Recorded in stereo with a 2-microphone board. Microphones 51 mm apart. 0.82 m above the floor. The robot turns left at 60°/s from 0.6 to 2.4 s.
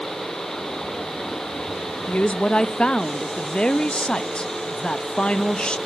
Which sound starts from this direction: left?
A woman speaking, at 2.1 s.